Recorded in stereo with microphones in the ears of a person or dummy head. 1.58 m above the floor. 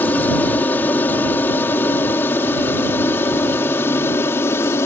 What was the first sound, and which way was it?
An aircraft, 5° left (ahead or behind).